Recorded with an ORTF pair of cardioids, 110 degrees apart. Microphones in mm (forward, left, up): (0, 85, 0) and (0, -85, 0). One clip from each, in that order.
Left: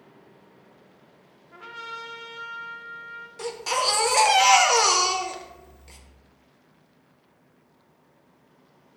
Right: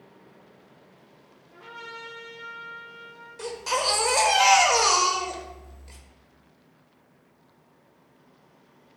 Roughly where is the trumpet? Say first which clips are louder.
Left 3 dB; ahead left.